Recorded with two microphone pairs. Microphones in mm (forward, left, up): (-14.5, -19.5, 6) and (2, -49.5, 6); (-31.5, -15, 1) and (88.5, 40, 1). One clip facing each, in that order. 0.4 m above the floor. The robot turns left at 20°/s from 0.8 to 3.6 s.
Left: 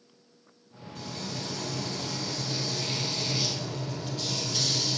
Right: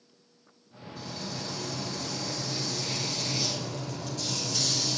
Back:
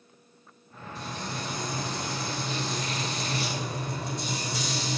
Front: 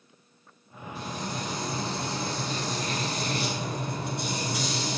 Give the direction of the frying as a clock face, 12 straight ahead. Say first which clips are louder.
Left 1 dB, front 2 dB; 8 o'clock.